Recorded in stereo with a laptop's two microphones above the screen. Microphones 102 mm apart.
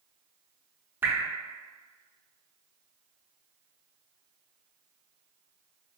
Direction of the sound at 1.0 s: 20° right (ahead or behind).